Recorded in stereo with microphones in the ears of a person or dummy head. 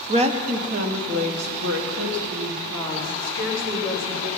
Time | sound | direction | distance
0.1 | a woman speaking | 30° right (ahead or behind) | 0.9 m